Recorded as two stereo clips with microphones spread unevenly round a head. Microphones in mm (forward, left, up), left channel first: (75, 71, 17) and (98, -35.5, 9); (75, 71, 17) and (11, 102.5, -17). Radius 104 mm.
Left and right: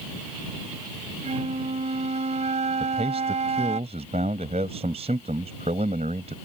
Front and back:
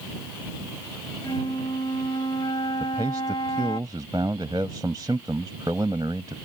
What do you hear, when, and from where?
1.2 s a flute: 60° right
2.8 s a man speaking: 135° right